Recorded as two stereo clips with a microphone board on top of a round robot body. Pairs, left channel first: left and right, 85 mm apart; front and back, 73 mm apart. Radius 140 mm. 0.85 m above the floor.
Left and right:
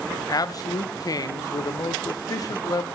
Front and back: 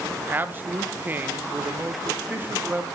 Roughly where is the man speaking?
Behind left.